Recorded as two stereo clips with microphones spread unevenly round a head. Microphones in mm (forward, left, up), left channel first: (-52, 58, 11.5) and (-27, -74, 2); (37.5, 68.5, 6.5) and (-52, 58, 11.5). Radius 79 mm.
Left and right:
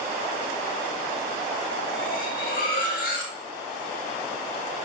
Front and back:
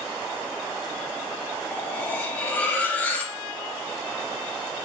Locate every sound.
1.7 s cutlery clinking: 80° left, 2 m